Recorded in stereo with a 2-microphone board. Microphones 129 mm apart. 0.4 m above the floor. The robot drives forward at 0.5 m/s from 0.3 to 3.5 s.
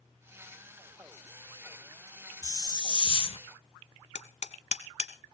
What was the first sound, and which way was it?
A hiss, 30° left (ahead or behind).